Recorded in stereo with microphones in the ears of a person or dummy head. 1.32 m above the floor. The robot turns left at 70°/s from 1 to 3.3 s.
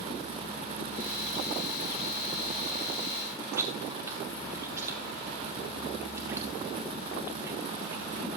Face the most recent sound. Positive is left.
turn(degrees=-15)  # may be behind; listen again after turning